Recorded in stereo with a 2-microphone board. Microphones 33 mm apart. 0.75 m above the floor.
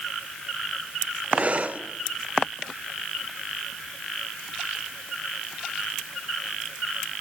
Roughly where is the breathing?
Right.